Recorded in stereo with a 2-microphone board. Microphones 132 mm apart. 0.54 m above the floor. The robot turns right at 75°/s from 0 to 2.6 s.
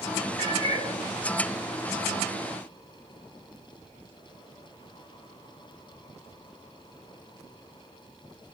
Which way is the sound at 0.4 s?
100° left.